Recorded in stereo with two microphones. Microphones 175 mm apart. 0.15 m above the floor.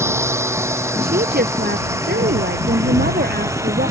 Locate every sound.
0.0 s a drone: 15° right (ahead or behind)
1.0 s a woman speaking: 65° right (ahead or behind)